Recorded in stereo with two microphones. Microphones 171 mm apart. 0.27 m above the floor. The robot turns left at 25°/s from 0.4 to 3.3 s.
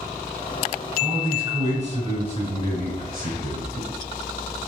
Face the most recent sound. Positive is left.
turn(degrees=-70)